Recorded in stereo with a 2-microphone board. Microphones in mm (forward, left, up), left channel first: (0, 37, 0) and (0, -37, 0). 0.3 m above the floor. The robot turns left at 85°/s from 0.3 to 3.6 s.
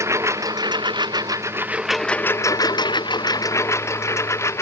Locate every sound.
0.0 s a lawn mower: 40° right; by 4.6 s 40° left